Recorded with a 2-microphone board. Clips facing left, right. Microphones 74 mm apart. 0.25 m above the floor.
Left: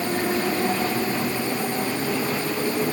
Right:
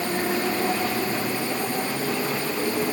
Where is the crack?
I don't hear a crack.